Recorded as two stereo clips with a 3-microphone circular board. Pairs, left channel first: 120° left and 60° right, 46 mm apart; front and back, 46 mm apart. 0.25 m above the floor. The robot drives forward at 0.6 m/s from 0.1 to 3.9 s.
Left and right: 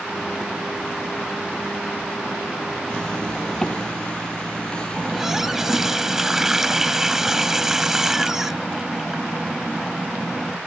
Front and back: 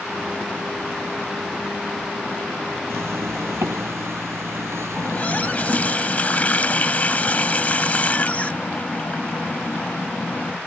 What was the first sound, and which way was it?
A zipper, 165° right.